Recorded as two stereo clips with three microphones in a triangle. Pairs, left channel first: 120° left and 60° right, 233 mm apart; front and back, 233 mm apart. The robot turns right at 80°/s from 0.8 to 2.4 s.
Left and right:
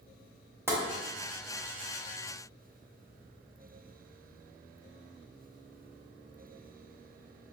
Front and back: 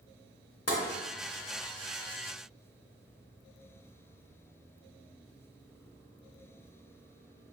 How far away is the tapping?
About 0.9 m.